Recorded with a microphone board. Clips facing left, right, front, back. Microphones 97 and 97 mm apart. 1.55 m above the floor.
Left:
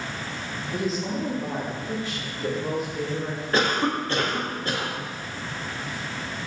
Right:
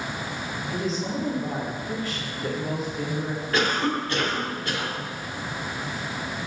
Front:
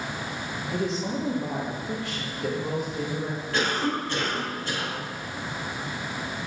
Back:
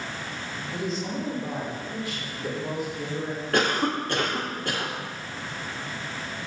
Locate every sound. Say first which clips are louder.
0.7 s a woman speaking: left 1 dB, front 2 dB; straight ahead, 2.0 m; by 3.4 s 35° left, 4 m
3.5 s a cough: left 1 dB, back 2 dB; 145° left, 1.5 m